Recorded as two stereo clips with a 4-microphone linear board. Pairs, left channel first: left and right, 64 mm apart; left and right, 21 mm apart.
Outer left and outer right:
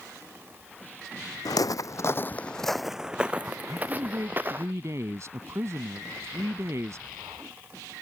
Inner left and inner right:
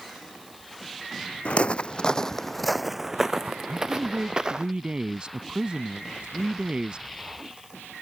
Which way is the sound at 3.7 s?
50° right (ahead or behind).